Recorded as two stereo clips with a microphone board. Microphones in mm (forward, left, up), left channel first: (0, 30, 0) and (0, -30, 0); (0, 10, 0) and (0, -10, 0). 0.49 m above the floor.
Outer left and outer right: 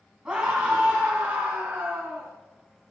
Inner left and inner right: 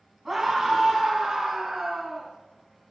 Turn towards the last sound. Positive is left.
turn(degrees=-30)  # may be behind; listen again after turning